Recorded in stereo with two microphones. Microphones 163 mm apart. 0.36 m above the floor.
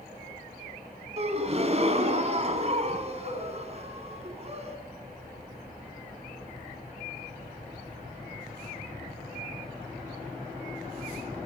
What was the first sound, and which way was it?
A gasp, 40° right (ahead or behind).